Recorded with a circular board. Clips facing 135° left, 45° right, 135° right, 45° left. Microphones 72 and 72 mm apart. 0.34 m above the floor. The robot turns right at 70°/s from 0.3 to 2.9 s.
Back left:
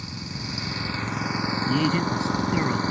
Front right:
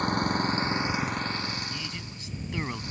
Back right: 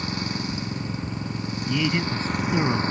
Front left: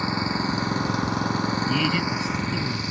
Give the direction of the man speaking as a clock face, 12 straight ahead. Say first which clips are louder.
Back left 16 dB, front left 1 dB; 8 o'clock.